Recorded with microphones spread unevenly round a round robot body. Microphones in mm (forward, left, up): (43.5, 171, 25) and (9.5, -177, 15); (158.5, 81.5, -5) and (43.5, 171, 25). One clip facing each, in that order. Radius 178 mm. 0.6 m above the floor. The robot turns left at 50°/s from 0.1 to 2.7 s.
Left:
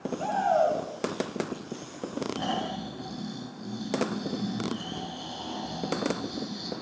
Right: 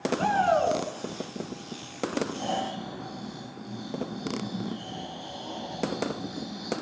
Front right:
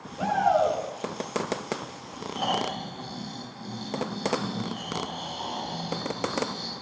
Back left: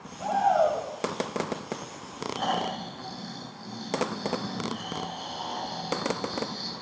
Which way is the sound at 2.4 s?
45° left.